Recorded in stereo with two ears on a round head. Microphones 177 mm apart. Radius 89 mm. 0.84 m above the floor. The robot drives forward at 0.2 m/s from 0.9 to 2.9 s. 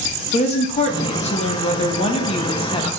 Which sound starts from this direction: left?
A woman speaking, at 0.3 s.